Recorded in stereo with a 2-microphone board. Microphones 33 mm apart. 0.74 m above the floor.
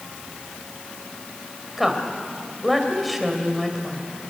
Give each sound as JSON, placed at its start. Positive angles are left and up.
{"t": 1.8, "sound": "a woman speaking", "side_deg": 0, "distance_m": 3.5}